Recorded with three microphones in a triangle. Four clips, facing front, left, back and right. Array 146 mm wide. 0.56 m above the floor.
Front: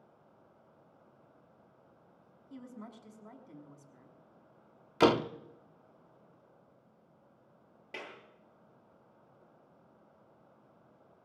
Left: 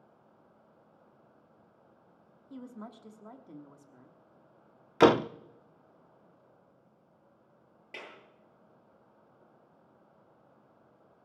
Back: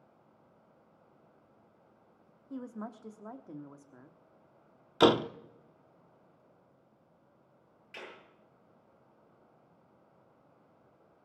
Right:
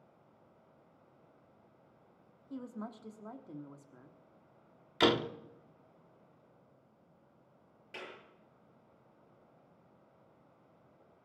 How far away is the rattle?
I don't hear a rattle.